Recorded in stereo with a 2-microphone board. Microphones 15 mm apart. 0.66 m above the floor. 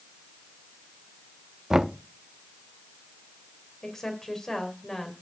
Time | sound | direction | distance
1.7 | knocking | 35° right (ahead or behind) | 0.6 m
3.8 | a woman speaking | 25° left (ahead or behind) | 3 m